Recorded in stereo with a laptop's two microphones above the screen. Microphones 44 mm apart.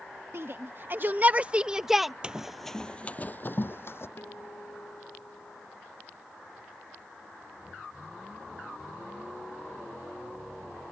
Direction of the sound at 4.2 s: 55° left (ahead or behind).